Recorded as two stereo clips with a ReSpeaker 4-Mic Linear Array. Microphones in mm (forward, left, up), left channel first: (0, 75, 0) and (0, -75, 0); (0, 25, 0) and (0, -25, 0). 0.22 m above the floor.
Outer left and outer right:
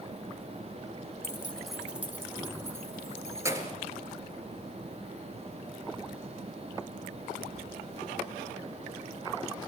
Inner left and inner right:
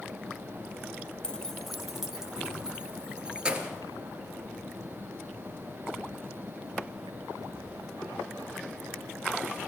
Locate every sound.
1.2 s keys jangling: 20° left (ahead or behind), 0.7 m; by 3.8 s 20° right (ahead or behind), 2.5 m